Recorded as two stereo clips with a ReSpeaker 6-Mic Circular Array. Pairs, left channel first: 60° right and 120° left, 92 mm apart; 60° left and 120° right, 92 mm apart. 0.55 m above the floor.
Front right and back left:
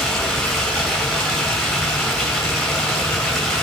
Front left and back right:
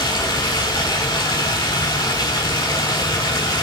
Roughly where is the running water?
Ahead left.